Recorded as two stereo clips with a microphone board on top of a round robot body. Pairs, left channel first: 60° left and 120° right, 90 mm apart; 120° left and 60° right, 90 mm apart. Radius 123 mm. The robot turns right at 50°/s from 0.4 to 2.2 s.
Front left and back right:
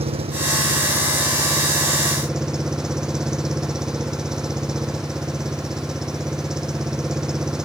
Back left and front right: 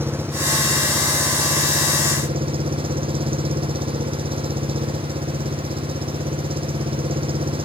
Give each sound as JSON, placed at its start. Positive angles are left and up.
{"t": 0.0, "sound": "an engine running", "azimuth_deg": -125}